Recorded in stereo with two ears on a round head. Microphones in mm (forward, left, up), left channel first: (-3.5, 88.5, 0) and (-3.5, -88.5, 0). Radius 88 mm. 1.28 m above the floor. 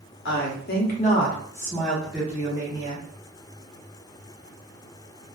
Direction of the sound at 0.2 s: 65° left (ahead or behind).